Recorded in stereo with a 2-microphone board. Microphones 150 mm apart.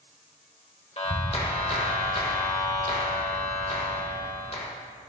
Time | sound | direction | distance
1.0 | a clap | 40° left (ahead or behind) | 0.9 m